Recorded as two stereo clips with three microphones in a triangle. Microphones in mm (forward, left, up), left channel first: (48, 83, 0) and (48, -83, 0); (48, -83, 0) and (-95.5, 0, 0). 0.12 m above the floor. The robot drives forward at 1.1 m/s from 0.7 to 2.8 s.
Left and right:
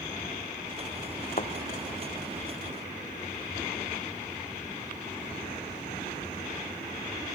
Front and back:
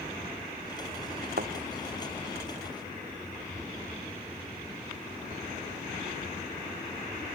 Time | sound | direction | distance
1.4 | a thud | 130° left | ?